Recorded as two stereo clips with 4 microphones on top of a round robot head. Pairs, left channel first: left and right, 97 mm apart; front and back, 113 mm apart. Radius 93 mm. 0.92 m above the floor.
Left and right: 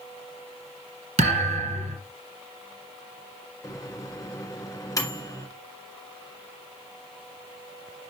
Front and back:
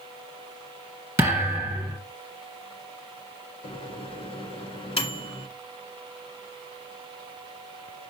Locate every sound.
1.2 s a thud: 100° right, 2.5 m
3.6 s a microwave: 35° left, 1.8 m